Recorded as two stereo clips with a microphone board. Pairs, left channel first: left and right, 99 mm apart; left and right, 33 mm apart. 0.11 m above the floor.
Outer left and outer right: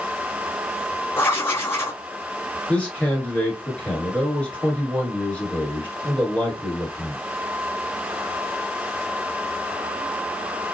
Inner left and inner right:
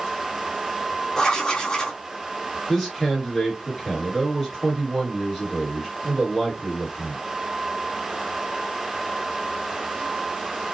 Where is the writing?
25° left (ahead or behind), 0.9 m.